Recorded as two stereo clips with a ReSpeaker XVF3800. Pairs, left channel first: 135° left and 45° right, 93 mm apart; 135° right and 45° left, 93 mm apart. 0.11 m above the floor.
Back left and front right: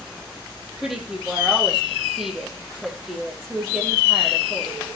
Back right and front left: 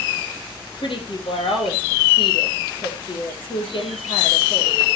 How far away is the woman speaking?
About 3.5 m.